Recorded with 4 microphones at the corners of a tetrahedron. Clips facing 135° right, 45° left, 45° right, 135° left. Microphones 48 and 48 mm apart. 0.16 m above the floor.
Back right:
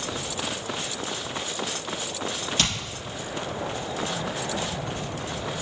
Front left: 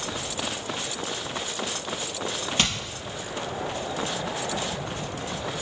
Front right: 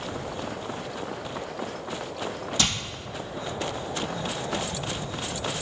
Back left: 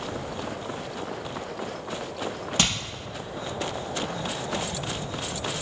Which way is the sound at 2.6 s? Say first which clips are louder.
Front left 1 dB, back left 2 dB; 105° left.